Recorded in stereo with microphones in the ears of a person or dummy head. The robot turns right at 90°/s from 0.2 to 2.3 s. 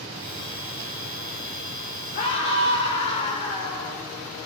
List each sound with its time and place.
2.1 s a scream: 45° left (ahead or behind), 4.5 m; by 4.0 s 30° left (ahead or behind), 4.5 m